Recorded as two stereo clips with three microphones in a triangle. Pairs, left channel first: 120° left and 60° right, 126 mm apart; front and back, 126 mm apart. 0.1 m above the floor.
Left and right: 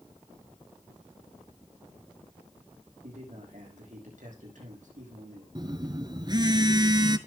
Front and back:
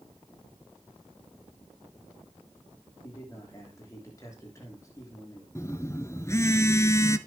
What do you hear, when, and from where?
3.0 s a man speaking: 65° right, 6.5 m
5.5 s a phone buzzing: 50° right, 1.1 m